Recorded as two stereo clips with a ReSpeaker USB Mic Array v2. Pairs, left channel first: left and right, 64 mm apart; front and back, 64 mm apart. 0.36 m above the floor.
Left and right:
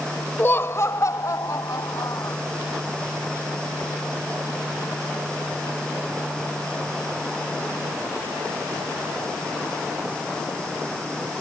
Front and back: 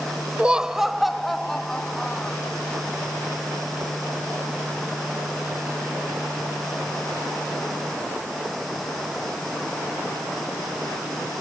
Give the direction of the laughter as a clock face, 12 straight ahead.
8 o'clock.